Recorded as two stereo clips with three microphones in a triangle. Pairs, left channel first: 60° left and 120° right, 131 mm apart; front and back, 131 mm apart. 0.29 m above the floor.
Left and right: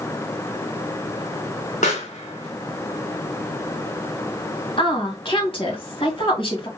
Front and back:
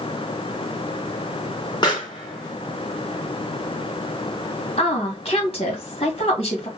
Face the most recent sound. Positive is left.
turn(degrees=25)